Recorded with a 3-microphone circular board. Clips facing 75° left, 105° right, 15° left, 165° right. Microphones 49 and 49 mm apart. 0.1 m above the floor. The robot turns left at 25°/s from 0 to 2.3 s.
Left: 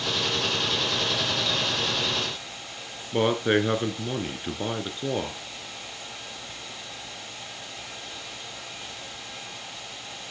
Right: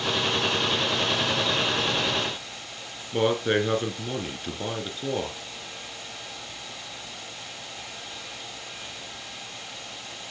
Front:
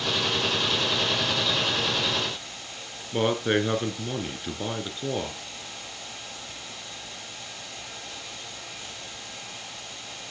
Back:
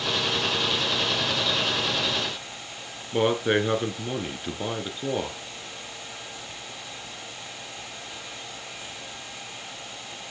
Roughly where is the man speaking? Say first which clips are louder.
Left 1 dB, back 1 dB; behind left.